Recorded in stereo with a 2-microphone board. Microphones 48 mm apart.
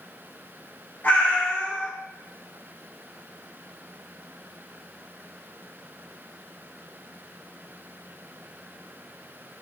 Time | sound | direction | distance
1.0 | a cat meowing | 40° left (ahead or behind) | 1.7 m